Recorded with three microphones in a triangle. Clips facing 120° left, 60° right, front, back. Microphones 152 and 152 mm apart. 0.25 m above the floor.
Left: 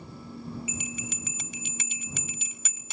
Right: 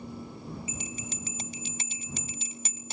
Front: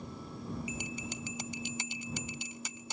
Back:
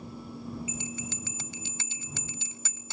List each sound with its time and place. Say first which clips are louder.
0.7 s a bell: left 2 dB, back 2 dB; 55° right